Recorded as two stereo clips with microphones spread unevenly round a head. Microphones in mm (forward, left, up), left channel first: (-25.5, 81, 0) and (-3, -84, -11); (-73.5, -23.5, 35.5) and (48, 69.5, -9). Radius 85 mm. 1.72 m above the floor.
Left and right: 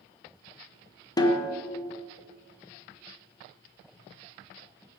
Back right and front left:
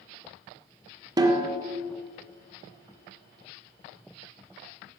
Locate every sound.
1.2 s a snare drum: 110° left, 1.4 m